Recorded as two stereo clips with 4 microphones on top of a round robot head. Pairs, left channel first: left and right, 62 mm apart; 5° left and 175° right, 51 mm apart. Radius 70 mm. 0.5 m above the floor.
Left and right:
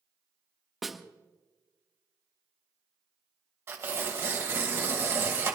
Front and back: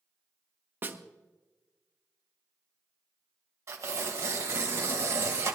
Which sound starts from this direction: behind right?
Tearing paper, at 3.7 s.